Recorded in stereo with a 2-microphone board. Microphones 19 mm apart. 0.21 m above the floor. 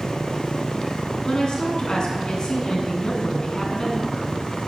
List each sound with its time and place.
1.2 s a woman speaking: 45° left (ahead or behind), 2 m